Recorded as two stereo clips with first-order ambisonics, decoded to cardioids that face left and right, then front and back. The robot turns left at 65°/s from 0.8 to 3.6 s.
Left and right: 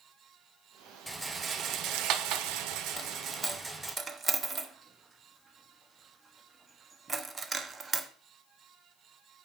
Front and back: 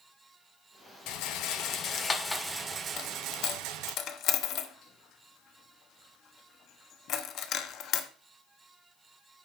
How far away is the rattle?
About 0.8 m.